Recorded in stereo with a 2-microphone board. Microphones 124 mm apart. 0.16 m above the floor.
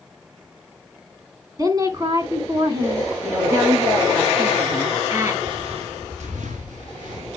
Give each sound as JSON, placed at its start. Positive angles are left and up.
{"t": 1.6, "sound": "a woman speaking", "side_deg": -30, "distance_m": 1.5}
{"t": 3.2, "sound": "a woman speaking", "side_deg": -25, "distance_m": 2.5}
{"t": 5.4, "sound": "footsteps", "side_deg": -45, "distance_m": 1.5}